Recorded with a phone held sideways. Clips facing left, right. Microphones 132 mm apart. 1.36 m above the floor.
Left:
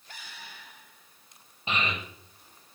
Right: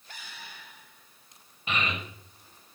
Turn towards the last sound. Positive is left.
turn(degrees=25)  # may be behind; listen again after turning